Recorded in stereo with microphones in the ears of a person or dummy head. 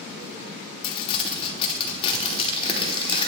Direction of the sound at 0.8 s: 35° left (ahead or behind).